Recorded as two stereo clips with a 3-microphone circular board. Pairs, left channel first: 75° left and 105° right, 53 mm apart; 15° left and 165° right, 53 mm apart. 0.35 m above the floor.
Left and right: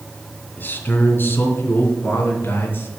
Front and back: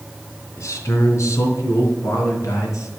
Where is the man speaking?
25° left, 3 m; by 2.9 s 30° left, 4.5 m.